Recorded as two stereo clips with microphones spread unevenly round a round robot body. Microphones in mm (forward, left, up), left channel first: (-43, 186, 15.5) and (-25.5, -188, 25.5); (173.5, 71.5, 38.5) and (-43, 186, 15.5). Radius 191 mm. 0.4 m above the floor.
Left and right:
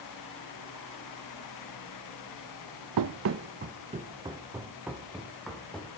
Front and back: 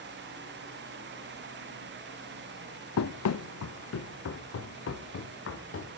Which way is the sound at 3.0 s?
50° right.